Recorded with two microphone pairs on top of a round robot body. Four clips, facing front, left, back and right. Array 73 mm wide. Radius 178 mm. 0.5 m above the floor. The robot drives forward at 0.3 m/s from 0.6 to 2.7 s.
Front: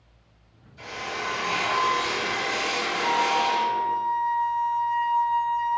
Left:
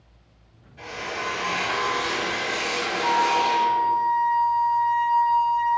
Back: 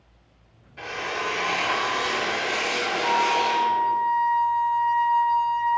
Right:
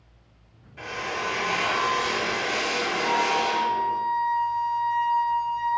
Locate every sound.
0.8 s a drill: 145° right, 0.9 m; by 4.0 s 160° right, 1.4 m
3.0 s a flute: 155° left, 1.9 m